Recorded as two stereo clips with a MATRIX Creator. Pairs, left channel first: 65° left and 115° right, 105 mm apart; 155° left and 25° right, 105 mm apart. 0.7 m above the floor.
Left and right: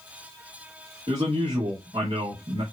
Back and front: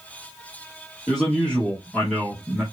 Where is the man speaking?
115° right, 1.6 m.